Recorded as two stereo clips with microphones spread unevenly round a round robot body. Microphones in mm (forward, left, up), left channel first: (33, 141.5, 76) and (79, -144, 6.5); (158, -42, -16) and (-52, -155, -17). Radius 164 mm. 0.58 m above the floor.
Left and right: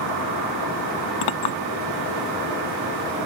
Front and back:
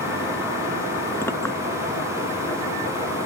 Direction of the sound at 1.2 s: 110° left.